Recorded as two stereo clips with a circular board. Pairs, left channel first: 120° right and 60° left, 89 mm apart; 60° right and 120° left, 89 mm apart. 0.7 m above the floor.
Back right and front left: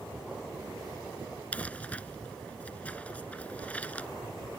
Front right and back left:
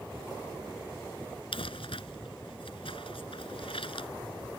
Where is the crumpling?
45° right.